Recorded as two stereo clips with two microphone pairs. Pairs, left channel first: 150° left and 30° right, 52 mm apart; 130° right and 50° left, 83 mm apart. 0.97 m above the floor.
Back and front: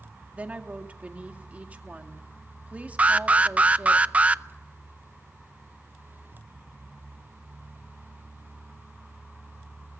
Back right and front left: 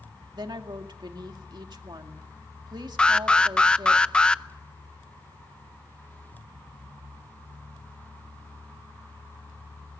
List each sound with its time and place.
0.3 s a woman speaking: 30° left, 2 m
3.0 s an alarm: 55° right, 0.5 m